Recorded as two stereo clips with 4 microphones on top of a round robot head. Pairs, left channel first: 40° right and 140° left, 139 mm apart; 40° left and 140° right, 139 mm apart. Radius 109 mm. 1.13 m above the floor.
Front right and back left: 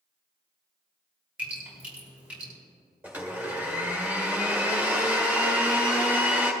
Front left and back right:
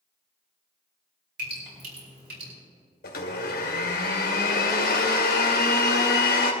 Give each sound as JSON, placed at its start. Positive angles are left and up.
{"t": 1.4, "sound": "dripping", "azimuth_deg": -140, "distance_m": 5.0}
{"t": 3.0, "sound": "a blender", "azimuth_deg": 60, "distance_m": 1.9}